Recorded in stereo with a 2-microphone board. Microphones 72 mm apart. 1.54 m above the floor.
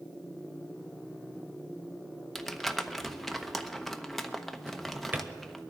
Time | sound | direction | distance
2.4 | crumpling | 5° left (ahead or behind) | 0.8 m
4.7 | a drawer | 25° right (ahead or behind) | 0.9 m